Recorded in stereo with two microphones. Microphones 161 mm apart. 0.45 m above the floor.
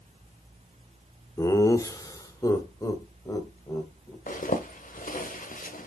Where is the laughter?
20° left (ahead or behind), 0.8 m.